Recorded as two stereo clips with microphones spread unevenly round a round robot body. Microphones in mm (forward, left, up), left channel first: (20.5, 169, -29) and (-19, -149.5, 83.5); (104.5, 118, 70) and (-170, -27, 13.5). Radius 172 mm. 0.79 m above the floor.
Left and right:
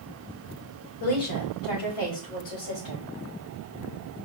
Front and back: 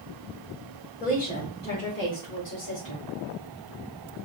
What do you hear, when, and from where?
1.0 s a woman speaking: 95° left, 2.5 m; by 3.0 s 75° left, 3.5 m